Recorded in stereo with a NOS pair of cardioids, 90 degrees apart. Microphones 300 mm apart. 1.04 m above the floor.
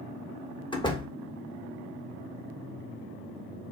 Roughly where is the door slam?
Ahead.